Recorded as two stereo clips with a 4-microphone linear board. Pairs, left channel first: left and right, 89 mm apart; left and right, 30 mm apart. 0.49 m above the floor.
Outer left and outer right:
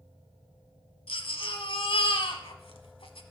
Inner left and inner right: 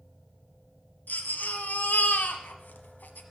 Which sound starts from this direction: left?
A baby crying, at 1.1 s.